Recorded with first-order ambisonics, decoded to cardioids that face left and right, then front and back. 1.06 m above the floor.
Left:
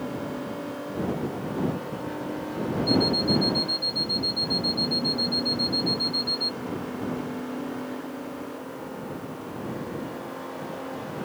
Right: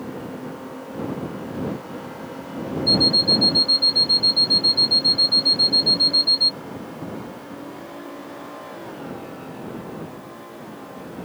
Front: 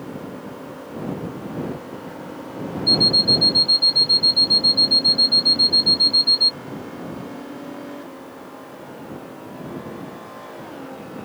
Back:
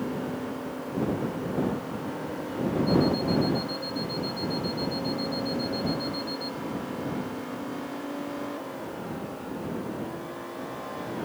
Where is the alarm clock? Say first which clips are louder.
Right 8 dB, front 13 dB; 30° right.